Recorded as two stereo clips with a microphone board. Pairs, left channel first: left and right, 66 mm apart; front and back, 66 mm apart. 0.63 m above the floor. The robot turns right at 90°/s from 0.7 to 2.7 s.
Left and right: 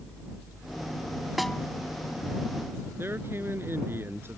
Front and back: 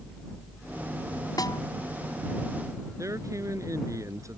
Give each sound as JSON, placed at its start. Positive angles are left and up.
{"t": 1.4, "sound": "a snare drum", "azimuth_deg": 0}
{"t": 3.0, "sound": "a man speaking", "azimuth_deg": -145}